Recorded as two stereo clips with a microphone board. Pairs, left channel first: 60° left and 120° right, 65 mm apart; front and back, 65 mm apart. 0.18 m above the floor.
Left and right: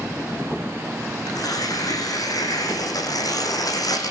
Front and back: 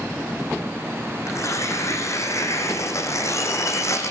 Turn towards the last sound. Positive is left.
turn(degrees=40)